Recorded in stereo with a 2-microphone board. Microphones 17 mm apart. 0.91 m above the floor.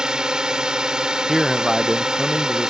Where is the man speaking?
10° right (ahead or behind).